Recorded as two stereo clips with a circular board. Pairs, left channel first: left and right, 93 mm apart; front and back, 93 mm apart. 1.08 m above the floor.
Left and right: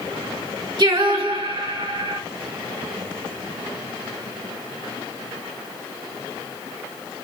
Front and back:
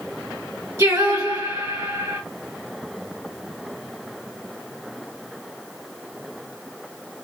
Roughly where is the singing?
Behind right.